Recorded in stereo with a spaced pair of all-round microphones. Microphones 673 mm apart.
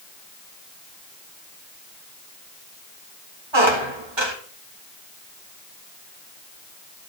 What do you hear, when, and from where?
3.5 s a squeak: 40° right (ahead or behind), 1.9 m